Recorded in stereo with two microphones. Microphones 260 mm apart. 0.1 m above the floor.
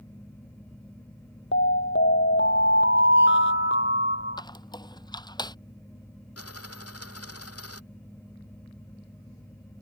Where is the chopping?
No chopping in this recording.